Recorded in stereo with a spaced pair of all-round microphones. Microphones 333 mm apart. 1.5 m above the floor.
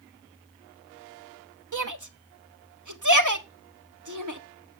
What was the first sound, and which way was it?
A shout, 65° right (ahead or behind).